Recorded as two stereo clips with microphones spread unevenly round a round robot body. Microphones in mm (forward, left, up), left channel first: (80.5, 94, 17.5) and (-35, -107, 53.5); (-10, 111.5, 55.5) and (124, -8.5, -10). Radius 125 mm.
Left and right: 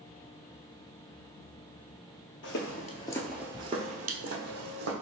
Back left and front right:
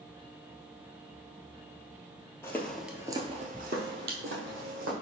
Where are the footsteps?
90° left, 0.9 m; by 4.9 s 90° right, 1.7 m.